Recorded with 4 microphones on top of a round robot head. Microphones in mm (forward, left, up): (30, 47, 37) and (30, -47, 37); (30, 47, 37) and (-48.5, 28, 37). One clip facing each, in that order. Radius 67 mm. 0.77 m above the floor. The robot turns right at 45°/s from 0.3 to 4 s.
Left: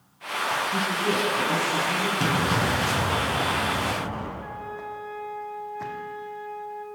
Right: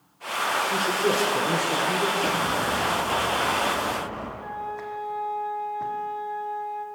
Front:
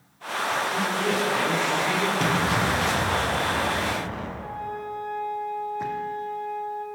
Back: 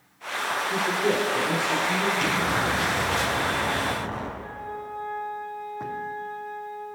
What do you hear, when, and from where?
0.7 s a man speaking: 125° right, 3 m; by 2.1 s 60° right, 3 m
2.2 s an explosion: 60° left, 5.5 m; by 4.3 s 145° left, 5.5 m
4.4 s a flute: 20° right, 4.5 m